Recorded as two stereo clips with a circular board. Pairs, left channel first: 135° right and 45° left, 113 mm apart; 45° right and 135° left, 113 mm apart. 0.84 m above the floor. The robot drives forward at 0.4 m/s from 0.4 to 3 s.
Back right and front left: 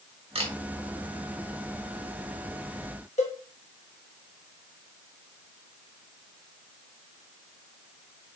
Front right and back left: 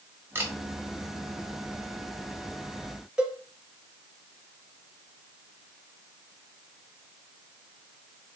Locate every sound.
0.3 s a camera shutter: 70° left, 1.2 m
3.2 s a cowbell: 145° right, 0.8 m